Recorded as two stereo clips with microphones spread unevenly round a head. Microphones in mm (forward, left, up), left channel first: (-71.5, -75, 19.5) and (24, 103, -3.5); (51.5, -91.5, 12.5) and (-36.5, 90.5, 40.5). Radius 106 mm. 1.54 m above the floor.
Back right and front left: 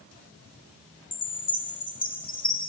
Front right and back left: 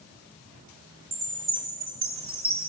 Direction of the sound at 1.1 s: Straight behind.